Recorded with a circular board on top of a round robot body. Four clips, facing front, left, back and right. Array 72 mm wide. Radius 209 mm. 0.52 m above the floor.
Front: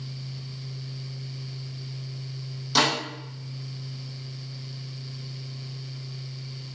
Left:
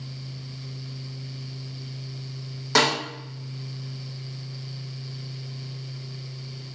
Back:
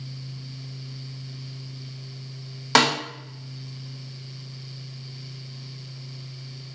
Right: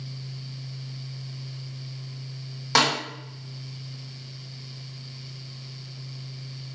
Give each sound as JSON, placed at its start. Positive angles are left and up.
{"t": 2.8, "sound": "a snare drum", "azimuth_deg": -175, "distance_m": 0.8}